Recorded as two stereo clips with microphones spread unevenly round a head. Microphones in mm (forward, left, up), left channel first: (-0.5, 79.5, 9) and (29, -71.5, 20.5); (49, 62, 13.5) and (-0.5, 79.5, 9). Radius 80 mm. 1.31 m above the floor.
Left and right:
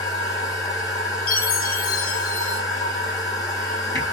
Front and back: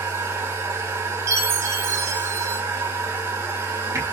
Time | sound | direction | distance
0.0 | a machine running | 170° left | 2 m
1.3 | a chime | 140° left | 2 m